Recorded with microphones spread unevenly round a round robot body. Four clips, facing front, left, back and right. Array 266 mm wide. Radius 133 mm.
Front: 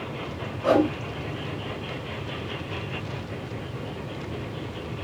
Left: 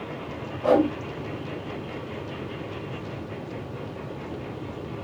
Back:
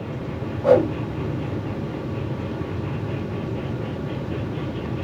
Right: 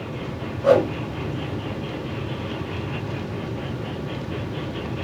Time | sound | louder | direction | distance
0.6 | a whoosh | right 3 dB, back 4 dB | 135° left | 3 m